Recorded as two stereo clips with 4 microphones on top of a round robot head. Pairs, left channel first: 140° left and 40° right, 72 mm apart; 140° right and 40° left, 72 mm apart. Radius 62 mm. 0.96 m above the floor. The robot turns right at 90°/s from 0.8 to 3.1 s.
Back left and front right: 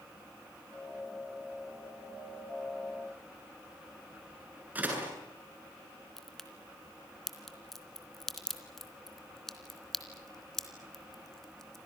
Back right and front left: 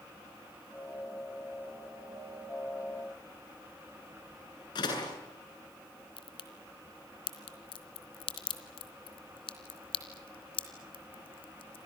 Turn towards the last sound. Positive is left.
turn(degrees=-135)